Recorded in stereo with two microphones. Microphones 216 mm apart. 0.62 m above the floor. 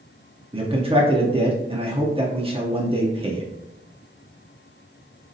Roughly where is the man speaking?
Right.